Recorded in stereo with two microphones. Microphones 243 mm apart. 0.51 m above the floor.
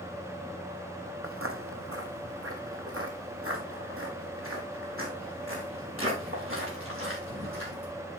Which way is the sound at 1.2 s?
60° right (ahead or behind).